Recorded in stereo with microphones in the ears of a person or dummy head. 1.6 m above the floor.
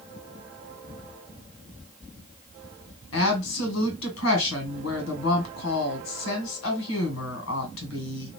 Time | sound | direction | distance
3.1 | a woman speaking | 85° left | 1.8 m